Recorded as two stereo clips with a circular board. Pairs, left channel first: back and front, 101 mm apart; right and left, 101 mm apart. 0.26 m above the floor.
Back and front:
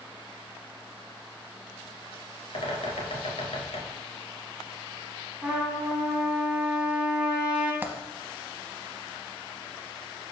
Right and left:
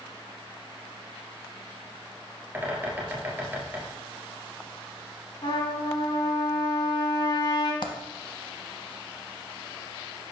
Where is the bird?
160° left, 1.4 m.